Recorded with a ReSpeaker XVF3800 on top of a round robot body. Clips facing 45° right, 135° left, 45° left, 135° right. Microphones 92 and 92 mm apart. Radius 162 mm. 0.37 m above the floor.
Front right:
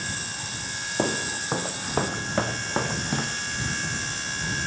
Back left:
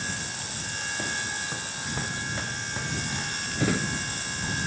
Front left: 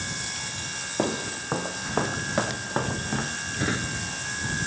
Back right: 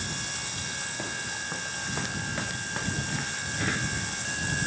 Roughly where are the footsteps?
Ahead.